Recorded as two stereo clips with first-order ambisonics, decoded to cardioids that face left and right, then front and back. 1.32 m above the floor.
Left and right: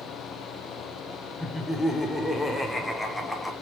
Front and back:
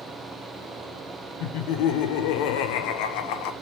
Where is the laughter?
5° left, 0.6 m.